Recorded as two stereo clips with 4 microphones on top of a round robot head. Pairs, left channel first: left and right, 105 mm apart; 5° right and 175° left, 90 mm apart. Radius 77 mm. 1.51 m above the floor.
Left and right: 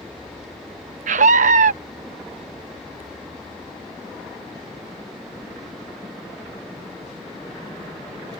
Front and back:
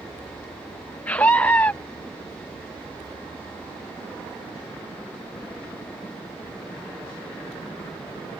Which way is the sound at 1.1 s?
85° right.